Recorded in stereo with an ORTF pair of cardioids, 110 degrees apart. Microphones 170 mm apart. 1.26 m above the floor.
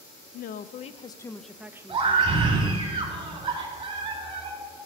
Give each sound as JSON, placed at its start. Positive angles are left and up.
{"t": 0.3, "sound": "a woman speaking", "azimuth_deg": 65, "distance_m": 0.8}
{"t": 1.9, "sound": "a scream", "azimuth_deg": -35, "distance_m": 3.0}